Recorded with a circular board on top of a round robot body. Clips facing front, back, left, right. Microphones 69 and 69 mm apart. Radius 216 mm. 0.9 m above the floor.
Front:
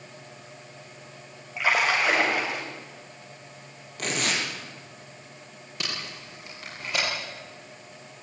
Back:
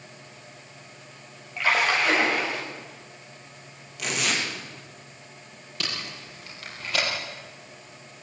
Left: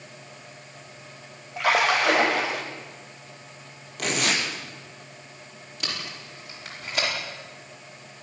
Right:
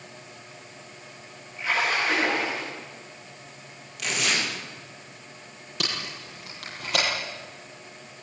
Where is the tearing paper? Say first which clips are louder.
Even, left 2 dB; 45° left, 4.5 m.